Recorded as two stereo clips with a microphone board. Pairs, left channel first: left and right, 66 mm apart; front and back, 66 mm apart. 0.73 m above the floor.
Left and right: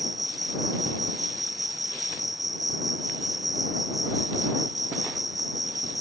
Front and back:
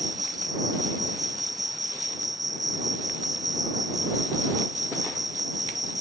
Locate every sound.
0.0 s an insect: straight behind